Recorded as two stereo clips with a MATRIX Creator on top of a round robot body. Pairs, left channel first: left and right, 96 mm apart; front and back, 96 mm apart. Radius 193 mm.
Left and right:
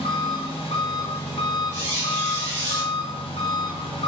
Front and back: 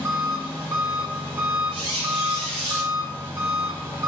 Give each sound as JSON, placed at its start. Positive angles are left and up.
{"t": 0.0, "sound": "an engine running", "azimuth_deg": 110, "distance_m": 1.0}
{"t": 1.7, "sound": "a squeak", "azimuth_deg": -150, "distance_m": 1.1}